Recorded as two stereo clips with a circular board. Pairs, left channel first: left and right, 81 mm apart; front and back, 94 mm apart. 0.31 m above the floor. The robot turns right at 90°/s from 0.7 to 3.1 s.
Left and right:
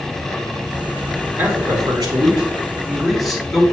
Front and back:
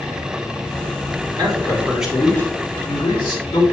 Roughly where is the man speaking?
Behind right.